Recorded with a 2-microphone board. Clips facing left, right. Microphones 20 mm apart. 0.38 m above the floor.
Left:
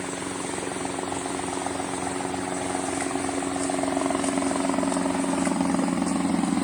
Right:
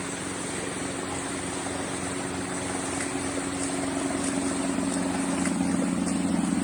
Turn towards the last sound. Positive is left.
turn(degrees=65)  # may be behind; listen again after turning